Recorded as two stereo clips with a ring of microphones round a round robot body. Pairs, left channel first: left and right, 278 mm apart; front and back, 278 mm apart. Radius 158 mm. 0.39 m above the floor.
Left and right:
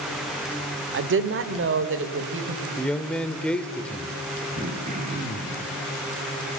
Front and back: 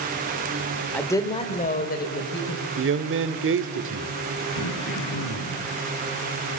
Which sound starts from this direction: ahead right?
Throat clearing, at 4.5 s.